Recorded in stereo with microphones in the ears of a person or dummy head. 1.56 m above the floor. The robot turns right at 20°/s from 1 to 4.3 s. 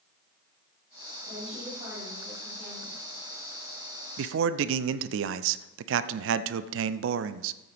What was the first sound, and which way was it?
A woman speaking, 35° right.